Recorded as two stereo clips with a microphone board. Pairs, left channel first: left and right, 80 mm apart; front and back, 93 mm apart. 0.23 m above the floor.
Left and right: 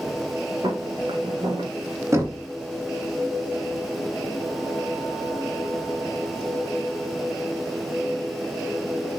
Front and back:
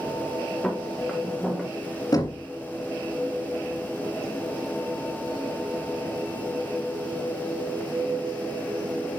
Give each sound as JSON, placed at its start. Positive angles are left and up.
{"t": 0.6, "sound": "footsteps", "azimuth_deg": -85, "distance_m": 2.5}
{"t": 2.1, "sound": "knocking", "azimuth_deg": -40, "distance_m": 1.5}